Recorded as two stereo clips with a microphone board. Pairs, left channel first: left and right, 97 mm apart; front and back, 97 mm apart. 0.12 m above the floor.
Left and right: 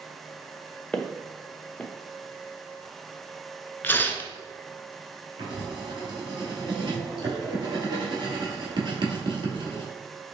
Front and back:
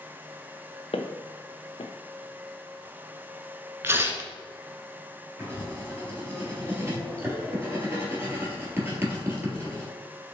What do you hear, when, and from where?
0.9 s footsteps: 10° left, 0.7 m
3.8 s tearing paper: 140° left, 0.6 m
5.4 s writing: 120° right, 1.5 m